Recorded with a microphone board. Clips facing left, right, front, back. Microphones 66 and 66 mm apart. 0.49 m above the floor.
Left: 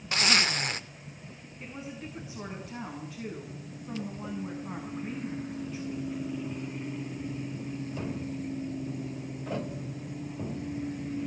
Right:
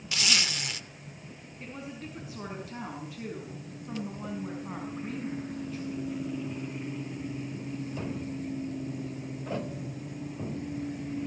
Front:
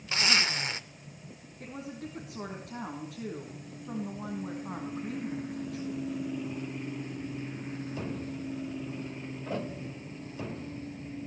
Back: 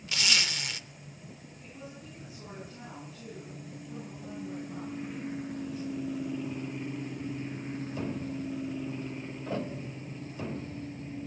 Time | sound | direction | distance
0.1 | a zipper | 50° left | 0.7 m
1.6 | a woman speaking | 5° right | 4.5 m